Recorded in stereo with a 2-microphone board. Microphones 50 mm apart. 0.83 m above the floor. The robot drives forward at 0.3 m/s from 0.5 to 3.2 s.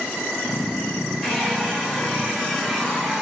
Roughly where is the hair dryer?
Centre.